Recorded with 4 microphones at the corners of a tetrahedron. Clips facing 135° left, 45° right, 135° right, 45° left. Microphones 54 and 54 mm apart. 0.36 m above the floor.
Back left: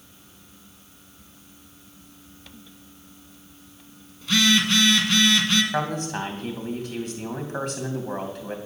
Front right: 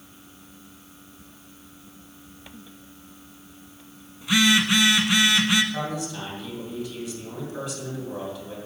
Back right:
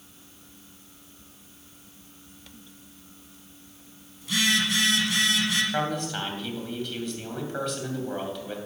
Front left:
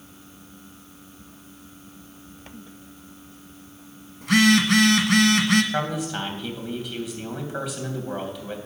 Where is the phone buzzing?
25° left, 1.3 m.